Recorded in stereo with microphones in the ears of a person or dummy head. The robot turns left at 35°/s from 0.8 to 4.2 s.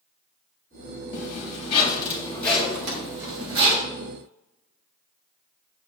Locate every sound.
1.1 s a zipper: 50° left (ahead or behind), 2.5 m; by 3.8 s 40° right (ahead or behind), 2.5 m
2.8 s a microwave: 55° right (ahead or behind), 1.5 m; by 3.1 s 45° right (ahead or behind), 1.5 m